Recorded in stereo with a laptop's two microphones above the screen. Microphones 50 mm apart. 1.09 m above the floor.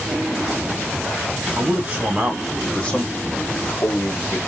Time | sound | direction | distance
1.6 | a man speaking | 30° right (ahead or behind) | 0.8 m